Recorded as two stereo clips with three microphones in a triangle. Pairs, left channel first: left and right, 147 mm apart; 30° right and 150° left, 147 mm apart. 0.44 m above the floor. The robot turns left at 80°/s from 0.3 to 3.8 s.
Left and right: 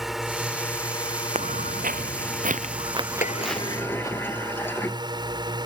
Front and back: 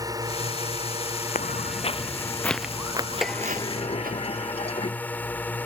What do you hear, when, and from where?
0.0 s a drone: 175° right; by 5.7 s 95° right
1.4 s footsteps: 50° right; by 4.2 s 160° left
3.2 s a sliding door: 60° left; by 5.0 s 15° left